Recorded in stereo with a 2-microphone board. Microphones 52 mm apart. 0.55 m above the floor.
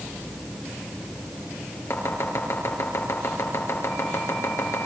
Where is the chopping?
65° left (ahead or behind), 5 m.